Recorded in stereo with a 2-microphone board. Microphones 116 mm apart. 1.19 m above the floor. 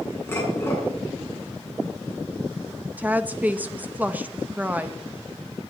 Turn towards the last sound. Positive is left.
turn(degrees=-15)  # may be behind; listen again after turning